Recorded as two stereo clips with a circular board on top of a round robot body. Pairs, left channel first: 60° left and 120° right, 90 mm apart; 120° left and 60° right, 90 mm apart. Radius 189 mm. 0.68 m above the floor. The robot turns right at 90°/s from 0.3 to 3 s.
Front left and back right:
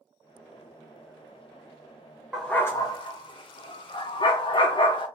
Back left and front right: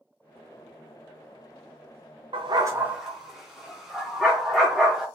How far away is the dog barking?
About 0.5 m.